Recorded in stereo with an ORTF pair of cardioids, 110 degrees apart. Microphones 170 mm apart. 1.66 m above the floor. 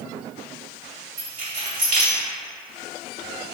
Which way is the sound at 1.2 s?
50° right.